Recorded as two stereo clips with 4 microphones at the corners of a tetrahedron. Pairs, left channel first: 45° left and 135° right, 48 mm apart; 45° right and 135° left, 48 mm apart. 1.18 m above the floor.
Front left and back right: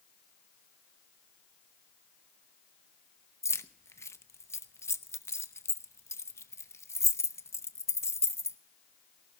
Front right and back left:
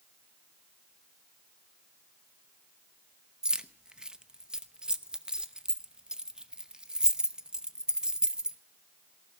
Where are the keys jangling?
60° left, 0.8 m.